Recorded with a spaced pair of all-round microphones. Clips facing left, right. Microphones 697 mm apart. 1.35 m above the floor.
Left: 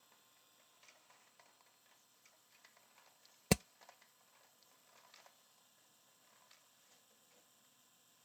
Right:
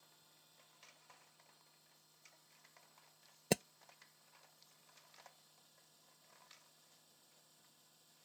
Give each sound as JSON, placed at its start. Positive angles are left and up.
{"t": 0.0, "sound": "a machine running", "side_deg": -65}
{"t": 3.5, "sound": "hammering", "side_deg": 40}